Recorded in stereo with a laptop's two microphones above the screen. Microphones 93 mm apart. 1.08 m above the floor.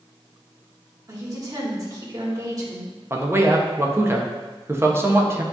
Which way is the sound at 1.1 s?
35° right (ahead or behind).